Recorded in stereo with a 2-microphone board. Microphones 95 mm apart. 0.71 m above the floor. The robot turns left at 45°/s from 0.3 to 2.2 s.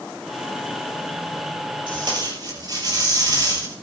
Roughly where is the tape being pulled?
Right.